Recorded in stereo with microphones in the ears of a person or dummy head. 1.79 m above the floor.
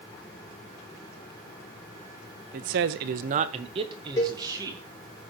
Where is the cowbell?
15° left (ahead or behind), 3 m.